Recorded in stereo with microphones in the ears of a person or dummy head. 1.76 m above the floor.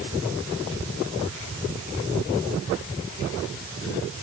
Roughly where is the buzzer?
I don't hear a buzzer.